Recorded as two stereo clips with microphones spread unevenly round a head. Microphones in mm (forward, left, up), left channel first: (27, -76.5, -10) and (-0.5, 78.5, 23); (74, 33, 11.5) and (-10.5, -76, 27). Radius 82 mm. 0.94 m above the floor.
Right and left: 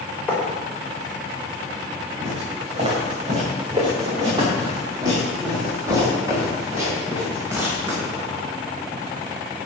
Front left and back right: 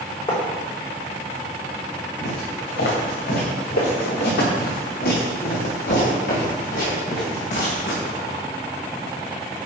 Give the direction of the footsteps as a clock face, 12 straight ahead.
10 o'clock.